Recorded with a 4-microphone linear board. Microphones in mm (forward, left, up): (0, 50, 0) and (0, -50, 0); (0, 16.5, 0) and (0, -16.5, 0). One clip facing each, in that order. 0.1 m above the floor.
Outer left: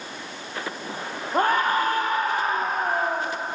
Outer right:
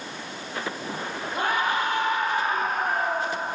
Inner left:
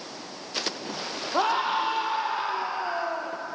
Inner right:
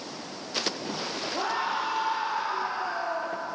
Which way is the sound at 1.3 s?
45° left (ahead or behind).